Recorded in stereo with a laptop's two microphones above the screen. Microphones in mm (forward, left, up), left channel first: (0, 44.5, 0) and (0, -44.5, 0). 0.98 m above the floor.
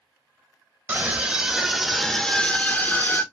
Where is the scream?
30° right (ahead or behind), 1.2 m; by 3.2 s 40° left (ahead or behind), 1.2 m.